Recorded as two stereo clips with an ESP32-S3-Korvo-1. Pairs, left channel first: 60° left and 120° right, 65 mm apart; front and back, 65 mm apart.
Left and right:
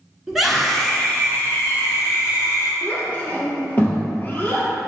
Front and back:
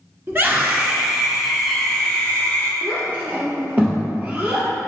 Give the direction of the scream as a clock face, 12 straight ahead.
7 o'clock.